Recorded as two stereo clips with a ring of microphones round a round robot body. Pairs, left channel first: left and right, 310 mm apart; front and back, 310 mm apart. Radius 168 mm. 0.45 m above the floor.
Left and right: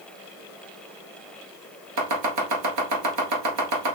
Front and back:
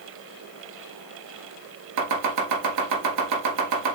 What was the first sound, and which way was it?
Chopping, 135° right.